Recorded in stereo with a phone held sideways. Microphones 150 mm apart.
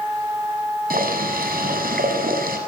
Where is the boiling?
80° right, 7 m.